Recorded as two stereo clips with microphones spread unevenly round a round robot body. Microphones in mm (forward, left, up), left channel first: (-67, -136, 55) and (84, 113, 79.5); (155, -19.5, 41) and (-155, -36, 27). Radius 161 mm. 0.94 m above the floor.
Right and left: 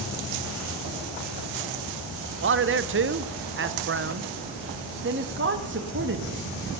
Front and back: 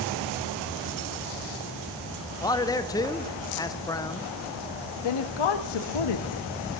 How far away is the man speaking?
About 0.6 m.